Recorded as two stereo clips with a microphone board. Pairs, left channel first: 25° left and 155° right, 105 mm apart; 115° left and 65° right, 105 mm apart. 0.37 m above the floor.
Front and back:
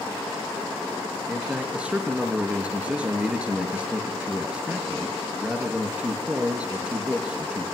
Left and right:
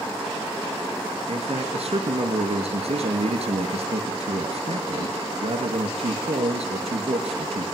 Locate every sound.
1.3 s a man speaking: 80° right, 5.5 m